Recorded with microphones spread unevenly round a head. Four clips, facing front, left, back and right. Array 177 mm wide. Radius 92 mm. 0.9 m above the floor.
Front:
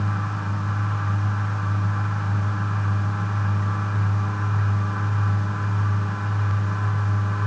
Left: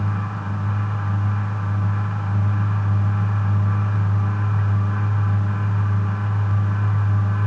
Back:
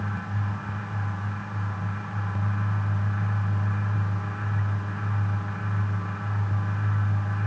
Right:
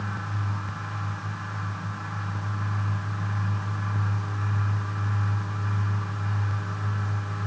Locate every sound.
Only background noise.